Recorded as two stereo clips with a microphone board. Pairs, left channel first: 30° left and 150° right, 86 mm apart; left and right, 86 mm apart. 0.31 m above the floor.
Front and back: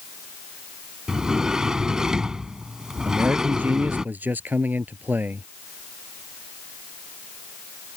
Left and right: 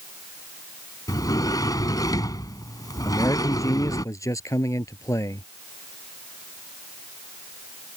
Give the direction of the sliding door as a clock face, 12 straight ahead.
8 o'clock.